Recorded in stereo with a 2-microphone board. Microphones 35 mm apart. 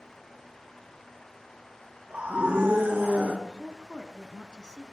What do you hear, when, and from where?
2.1 s a scream: 45° right (ahead or behind), 2 m; by 3.3 s 55° right (ahead or behind), 2.5 m
3.4 s a woman speaking: 25° left (ahead or behind), 1.1 m